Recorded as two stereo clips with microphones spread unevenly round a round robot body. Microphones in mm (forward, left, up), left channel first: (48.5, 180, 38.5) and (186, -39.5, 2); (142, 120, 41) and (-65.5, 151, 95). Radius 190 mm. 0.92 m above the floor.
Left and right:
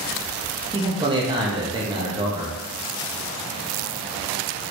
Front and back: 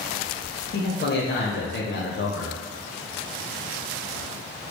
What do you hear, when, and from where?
0.7 s a man speaking: 10° left, 0.9 m